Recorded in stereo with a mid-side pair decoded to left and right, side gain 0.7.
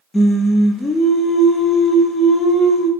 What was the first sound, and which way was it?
Singing, 20° left.